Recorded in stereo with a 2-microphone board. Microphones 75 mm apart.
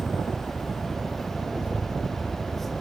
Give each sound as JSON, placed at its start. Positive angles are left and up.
{"t": 0.0, "sound": "a helicopter", "side_deg": 10}